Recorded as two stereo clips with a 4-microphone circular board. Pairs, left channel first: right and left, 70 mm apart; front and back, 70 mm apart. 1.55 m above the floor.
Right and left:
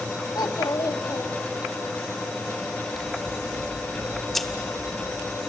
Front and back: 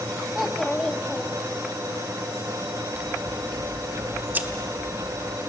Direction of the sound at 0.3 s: 95° right.